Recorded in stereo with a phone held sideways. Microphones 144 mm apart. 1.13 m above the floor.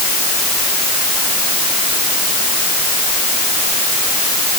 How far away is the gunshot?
No gunshot in this recording.